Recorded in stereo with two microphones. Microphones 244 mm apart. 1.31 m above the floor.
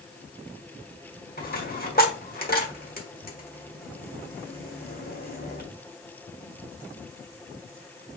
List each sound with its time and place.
1.4 s a dropped coin: 35° left (ahead or behind), 1.1 m